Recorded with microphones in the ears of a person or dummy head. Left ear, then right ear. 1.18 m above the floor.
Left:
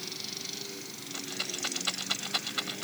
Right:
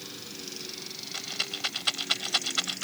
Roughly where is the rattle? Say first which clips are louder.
Right 3 dB; right.